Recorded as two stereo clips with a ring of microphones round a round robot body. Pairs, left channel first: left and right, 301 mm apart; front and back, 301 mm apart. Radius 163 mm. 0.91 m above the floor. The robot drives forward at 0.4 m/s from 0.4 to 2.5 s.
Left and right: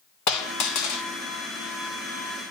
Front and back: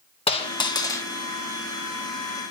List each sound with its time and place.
0.3 s a dropped coin: 70° left, 1.6 m; by 1.1 s 80° left, 1.6 m